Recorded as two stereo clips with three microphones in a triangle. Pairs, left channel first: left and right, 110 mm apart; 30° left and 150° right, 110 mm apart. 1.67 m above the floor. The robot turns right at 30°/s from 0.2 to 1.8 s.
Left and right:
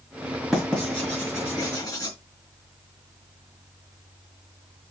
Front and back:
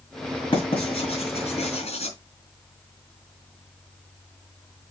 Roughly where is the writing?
Ahead.